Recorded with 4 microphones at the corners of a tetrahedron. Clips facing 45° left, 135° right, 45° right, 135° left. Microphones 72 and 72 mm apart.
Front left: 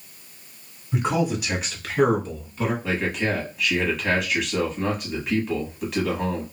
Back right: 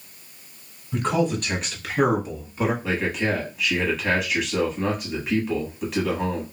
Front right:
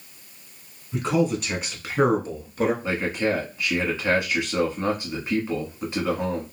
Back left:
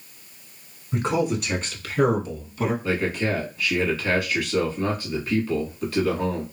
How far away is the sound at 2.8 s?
About 1.2 m.